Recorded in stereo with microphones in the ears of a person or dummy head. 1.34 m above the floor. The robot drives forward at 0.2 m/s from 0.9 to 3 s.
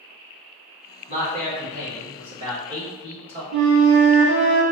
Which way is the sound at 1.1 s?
30° right (ahead or behind).